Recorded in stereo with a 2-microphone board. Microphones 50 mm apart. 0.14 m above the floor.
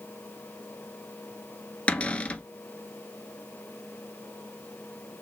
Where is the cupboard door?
25° left (ahead or behind), 0.6 m.